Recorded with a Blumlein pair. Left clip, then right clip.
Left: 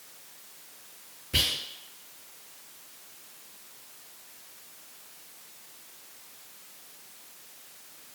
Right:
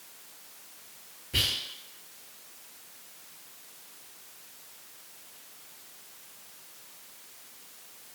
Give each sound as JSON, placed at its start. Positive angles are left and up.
{"t": 1.3, "sound": "whispering", "azimuth_deg": 15, "distance_m": 0.6}